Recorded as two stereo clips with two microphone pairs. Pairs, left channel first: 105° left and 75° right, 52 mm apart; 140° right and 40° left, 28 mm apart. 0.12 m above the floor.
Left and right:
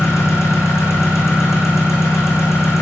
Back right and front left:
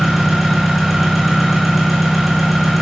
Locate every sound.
0.0 s an engine running: 130° left, 4 m